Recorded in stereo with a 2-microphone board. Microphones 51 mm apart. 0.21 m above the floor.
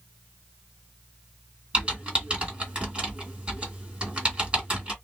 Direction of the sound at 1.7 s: 20° right (ahead or behind).